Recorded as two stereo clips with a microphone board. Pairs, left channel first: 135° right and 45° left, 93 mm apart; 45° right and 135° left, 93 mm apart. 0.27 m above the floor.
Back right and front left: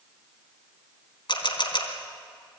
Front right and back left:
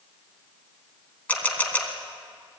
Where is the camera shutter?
115° right, 3 m.